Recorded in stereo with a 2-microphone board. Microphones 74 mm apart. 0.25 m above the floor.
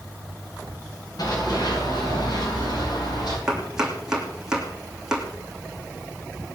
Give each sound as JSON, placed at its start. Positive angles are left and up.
{"t": 1.2, "sound": "running footsteps", "side_deg": 60, "distance_m": 8.0}
{"t": 3.5, "sound": "chopping", "side_deg": -10, "distance_m": 3.0}